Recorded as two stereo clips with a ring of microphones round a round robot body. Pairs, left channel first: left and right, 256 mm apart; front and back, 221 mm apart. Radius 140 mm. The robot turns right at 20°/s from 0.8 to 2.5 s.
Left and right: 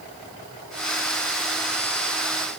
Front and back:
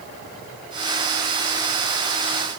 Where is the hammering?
I don't hear hammering.